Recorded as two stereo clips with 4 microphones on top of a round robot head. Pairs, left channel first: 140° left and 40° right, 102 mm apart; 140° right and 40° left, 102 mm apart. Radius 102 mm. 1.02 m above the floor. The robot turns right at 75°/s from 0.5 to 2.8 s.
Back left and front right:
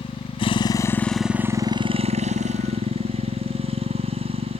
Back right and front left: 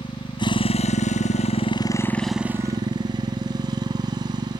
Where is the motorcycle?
175° left; by 4.6 s 10° right.